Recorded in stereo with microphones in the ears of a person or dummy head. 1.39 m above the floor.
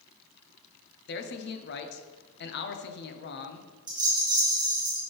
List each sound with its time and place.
1.1 s a man speaking: 55° left (ahead or behind), 0.7 m
3.9 s a rattle: 25° right (ahead or behind), 0.9 m